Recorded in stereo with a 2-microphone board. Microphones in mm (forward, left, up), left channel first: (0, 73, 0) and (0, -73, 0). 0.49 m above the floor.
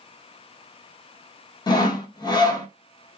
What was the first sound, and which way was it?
Sawing, 30° left (ahead or behind).